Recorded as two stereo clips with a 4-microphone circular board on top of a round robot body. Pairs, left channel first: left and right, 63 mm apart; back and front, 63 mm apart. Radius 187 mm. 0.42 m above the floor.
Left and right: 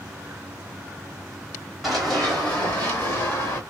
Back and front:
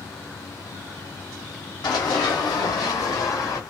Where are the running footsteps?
Straight behind, 1.5 m; by 3.6 s 145° left, 2 m.